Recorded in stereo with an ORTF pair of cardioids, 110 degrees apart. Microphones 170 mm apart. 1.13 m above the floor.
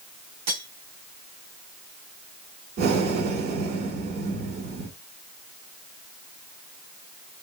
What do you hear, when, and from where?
0.5 s cutlery clinking: 65° right, 1.9 m
2.8 s breathing: 65° right, 2.0 m